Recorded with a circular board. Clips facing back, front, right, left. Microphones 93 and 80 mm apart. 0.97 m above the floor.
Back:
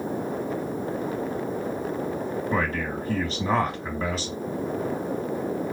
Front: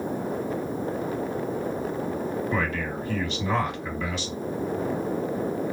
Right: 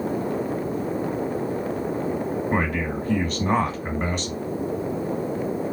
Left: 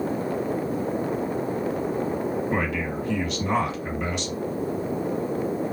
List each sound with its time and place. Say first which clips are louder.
2.5 s a man speaking: back 1 dB, right 2 dB; 130° right, 1.4 m